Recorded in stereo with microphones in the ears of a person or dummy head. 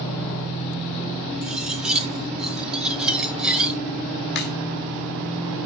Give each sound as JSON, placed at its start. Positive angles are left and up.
{"t": 1.4, "sound": "cutlery clinking", "side_deg": -5, "distance_m": 0.6}
{"t": 4.3, "sound": "a crack", "side_deg": 55, "distance_m": 2.0}